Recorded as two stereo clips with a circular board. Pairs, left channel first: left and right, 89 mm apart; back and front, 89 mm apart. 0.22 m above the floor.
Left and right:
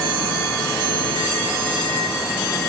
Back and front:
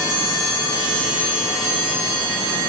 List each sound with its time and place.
Only background noise.